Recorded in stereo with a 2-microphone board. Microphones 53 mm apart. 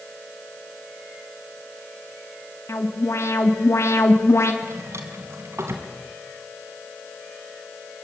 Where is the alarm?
60° left (ahead or behind), 2.5 m.